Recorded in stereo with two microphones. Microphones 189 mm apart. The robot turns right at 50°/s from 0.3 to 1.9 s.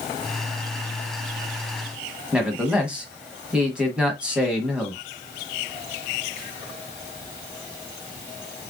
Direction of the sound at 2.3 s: 5° right (ahead or behind).